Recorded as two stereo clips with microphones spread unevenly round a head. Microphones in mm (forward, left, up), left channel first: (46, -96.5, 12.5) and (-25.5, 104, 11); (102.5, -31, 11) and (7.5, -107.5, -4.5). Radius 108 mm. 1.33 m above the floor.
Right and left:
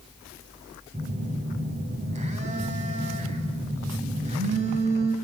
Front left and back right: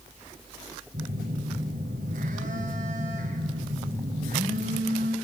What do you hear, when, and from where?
0.9 s a phone buzzing: 170° left, 3.5 m